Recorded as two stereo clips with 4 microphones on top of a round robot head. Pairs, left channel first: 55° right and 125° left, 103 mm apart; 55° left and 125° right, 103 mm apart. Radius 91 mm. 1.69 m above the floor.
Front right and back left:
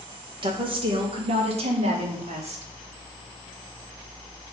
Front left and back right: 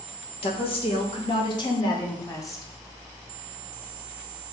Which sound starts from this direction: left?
A woman speaking, at 0.4 s.